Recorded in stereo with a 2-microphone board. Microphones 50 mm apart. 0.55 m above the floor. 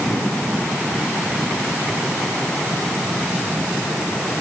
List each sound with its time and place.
Only background noise.